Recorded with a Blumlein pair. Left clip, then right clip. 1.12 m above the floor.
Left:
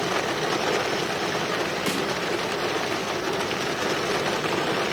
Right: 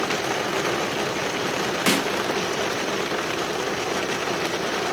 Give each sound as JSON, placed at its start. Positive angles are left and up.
{"t": 1.9, "sound": "a snare drum", "azimuth_deg": -70, "distance_m": 1.4}